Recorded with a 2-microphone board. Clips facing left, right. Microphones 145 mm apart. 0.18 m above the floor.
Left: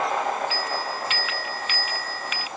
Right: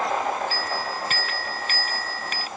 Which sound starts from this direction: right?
A bell, at 0.5 s.